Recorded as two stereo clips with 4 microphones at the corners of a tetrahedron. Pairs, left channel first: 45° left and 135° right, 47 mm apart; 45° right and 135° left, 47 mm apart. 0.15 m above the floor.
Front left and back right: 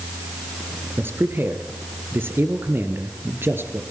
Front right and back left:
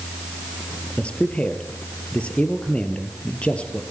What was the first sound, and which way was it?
A man speaking, 105° right.